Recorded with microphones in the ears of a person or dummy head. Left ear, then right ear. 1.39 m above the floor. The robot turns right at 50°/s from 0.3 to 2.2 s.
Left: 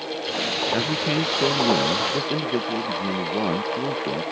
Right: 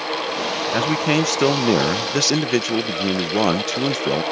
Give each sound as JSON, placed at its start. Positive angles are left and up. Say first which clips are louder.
{"t": 0.7, "sound": "a man speaking", "louder": "right 4 dB", "azimuth_deg": -160}